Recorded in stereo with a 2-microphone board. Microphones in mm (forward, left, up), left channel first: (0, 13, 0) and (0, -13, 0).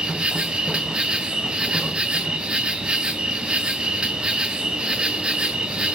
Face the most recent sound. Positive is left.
turn(degrees=-40)  # may be behind; listen again after turning